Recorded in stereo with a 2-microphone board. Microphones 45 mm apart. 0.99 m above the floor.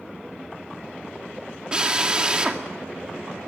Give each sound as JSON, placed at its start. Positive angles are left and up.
{"t": 1.7, "sound": "a drill", "side_deg": -20, "distance_m": 2.5}